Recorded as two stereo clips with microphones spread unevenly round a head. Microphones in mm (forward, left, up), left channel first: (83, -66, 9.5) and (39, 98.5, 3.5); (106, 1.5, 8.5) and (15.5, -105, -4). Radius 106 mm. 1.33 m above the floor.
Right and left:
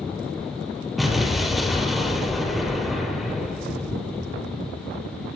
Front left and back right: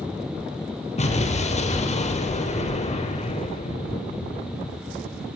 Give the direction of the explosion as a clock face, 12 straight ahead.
11 o'clock.